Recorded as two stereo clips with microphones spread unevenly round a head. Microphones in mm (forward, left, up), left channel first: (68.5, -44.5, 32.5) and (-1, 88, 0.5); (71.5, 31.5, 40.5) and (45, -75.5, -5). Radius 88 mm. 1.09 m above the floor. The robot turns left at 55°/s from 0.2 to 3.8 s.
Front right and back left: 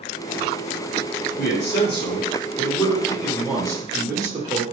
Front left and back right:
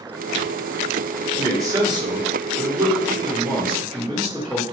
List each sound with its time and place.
1.4 s a man speaking: 50° right, 1.1 m; by 4.6 s 175° left, 1.1 m